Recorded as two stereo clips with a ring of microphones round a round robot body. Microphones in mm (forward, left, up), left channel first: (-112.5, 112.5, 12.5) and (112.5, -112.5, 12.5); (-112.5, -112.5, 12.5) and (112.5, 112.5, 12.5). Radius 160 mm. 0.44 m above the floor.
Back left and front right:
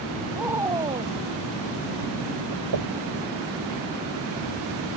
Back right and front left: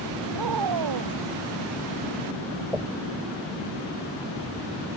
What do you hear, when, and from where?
0.3 s a woman speaking: 40° left; by 2.6 s 15° right
2.7 s knocking: 40° right